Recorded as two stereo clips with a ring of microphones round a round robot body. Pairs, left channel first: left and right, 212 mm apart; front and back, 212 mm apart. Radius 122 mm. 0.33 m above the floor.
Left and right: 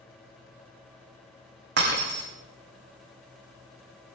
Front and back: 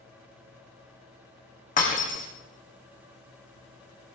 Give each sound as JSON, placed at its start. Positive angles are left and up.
{"t": 1.8, "sound": "breaking glass", "azimuth_deg": -50, "distance_m": 7.0}